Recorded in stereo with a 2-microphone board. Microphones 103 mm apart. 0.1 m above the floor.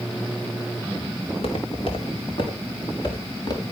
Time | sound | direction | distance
1.3 | footsteps | 65° left (ahead or behind) | 5 m